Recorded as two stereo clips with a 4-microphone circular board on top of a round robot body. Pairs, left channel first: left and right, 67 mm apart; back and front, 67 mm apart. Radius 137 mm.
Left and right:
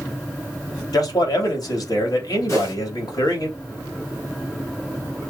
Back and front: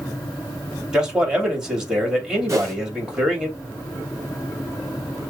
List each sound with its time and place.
0.9 s a man speaking: 80° left, 2.5 m
2.5 s a whoosh: 50° left, 3.5 m